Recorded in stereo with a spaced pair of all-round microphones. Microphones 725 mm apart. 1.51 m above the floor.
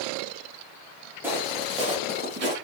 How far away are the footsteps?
About 3 m.